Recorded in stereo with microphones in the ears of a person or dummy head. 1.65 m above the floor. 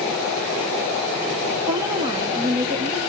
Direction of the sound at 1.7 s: 15° right (ahead or behind).